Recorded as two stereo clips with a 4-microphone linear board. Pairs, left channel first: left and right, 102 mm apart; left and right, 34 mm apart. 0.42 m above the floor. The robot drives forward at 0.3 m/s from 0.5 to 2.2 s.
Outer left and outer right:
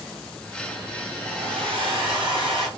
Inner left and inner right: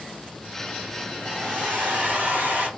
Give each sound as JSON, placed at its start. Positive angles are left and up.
{"t": 1.2, "sound": "a hair dryer", "side_deg": -60, "distance_m": 2.5}